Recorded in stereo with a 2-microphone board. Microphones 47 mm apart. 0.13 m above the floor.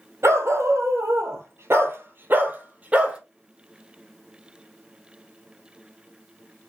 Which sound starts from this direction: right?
A dog barking, at 0.2 s.